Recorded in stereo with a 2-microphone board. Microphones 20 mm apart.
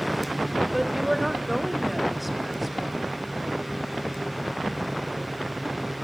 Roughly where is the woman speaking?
Centre.